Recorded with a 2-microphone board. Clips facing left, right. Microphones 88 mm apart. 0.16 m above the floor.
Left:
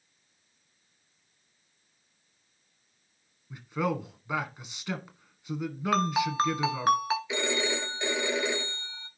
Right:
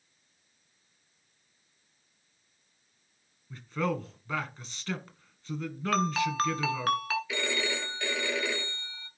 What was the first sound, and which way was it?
A man speaking, 15° left (ahead or behind).